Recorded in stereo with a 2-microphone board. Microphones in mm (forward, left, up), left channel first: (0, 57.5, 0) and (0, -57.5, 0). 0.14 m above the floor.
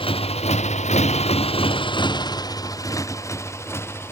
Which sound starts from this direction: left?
A motorcycle, at 0.0 s.